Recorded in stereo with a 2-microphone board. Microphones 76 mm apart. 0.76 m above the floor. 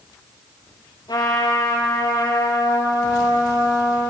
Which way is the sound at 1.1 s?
75° left (ahead or behind).